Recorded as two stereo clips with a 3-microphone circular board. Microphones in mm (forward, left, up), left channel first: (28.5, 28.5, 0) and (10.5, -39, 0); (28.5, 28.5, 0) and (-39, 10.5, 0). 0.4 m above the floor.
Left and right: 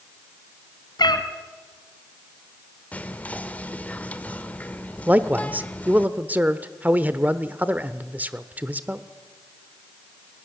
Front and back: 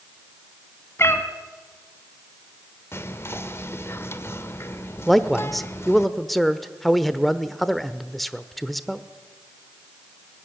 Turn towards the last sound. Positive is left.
turn(degrees=-75)